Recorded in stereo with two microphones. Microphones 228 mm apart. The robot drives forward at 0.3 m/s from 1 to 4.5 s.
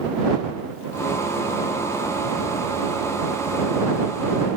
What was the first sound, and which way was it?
Only background noise.